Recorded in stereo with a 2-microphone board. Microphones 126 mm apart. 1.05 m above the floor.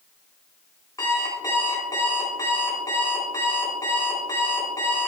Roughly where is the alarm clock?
Left.